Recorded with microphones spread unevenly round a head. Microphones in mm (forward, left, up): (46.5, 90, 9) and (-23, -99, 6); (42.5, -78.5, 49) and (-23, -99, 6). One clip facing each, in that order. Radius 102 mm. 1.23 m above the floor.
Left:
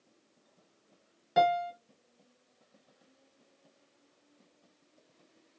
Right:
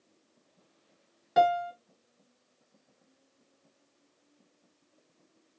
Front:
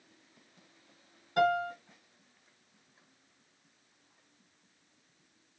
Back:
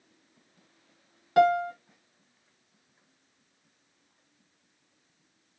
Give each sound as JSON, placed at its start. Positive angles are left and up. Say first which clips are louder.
{"t": 1.4, "sound": "a piano", "louder": "right 2 dB, back 6 dB", "azimuth_deg": 160, "distance_m": 1.0}